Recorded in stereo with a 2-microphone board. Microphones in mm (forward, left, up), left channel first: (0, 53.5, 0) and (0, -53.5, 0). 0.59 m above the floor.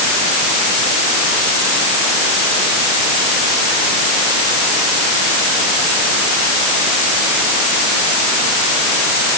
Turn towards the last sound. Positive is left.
No sound to turn to.